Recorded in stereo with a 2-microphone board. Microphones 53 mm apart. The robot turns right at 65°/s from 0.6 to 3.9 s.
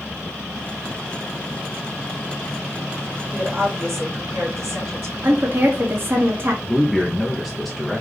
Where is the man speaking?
Centre (ahead or behind), 0.9 m.